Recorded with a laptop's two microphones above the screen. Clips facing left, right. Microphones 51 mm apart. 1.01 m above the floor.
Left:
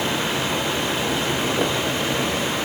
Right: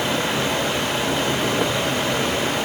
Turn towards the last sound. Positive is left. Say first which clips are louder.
# right 1 dB
turn(degrees=-55)  # may be behind; listen again after turning